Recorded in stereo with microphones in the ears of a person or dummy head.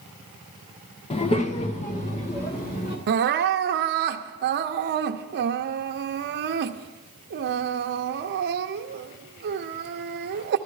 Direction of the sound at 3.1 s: 55° right (ahead or behind).